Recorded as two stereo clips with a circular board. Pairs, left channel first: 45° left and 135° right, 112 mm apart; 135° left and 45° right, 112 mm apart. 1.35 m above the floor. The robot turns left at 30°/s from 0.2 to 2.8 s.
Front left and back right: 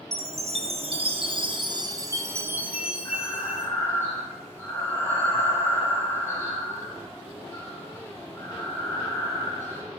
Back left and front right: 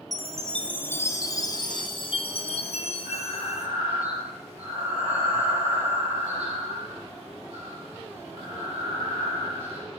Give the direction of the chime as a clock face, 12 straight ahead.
5 o'clock.